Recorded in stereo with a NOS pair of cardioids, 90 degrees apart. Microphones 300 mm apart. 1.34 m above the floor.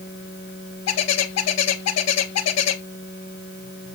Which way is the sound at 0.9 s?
60° left.